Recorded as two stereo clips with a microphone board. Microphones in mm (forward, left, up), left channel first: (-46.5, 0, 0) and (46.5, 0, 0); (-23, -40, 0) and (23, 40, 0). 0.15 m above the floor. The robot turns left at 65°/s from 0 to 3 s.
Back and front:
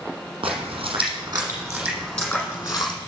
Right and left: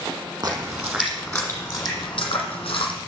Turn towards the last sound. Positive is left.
turn(degrees=-155)